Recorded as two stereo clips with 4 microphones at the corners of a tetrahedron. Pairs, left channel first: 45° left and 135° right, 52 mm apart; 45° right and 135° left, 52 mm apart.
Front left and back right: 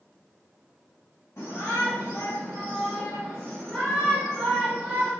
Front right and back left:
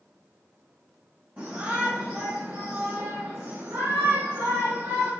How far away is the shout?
About 1.4 m.